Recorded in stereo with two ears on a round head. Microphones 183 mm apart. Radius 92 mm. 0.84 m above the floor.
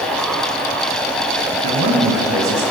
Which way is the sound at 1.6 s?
85° right.